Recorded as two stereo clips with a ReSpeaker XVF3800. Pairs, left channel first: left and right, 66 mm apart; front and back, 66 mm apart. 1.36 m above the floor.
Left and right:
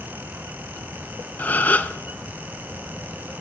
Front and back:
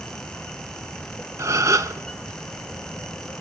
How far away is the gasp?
About 0.9 m.